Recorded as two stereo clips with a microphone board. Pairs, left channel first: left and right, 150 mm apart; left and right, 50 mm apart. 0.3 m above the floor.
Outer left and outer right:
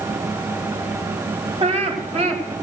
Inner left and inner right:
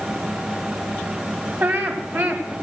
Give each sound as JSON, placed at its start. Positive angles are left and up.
{"t": 1.6, "sound": "laughter", "side_deg": -45, "distance_m": 2.5}